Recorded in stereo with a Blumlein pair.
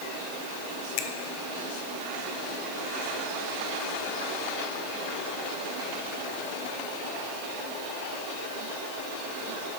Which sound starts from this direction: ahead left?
A finger snap, at 1.0 s.